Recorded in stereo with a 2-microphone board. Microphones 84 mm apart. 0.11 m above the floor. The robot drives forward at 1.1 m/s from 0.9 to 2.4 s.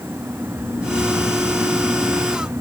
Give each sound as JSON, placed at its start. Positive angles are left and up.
{"t": 0.5, "sound": "snoring", "side_deg": 50, "distance_m": 1.9}